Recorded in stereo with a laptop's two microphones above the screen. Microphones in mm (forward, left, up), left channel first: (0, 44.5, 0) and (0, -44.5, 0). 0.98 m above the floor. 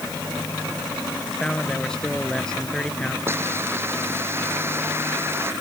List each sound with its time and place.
1.3 s a man speaking: 10° left (ahead or behind)
3.3 s a hiss: 25° right (ahead or behind)